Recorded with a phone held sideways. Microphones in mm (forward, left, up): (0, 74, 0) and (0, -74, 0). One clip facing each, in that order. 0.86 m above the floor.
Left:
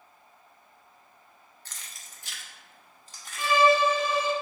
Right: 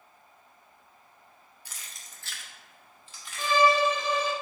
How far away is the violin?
About 0.8 m.